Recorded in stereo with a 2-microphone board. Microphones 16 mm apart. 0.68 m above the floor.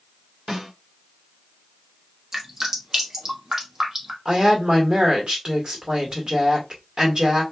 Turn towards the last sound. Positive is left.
turn(degrees=-60)  # may be behind; listen again after turning